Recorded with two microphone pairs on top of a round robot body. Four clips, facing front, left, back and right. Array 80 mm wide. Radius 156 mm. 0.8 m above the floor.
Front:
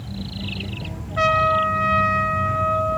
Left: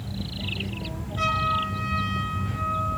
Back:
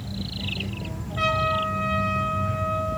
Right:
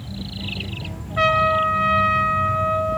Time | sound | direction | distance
1.2 | a trumpet | 45° right | 4.5 m